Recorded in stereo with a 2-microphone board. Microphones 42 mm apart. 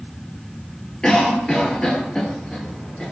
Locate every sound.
1.0 s a cough: 15° left (ahead or behind), 1.9 m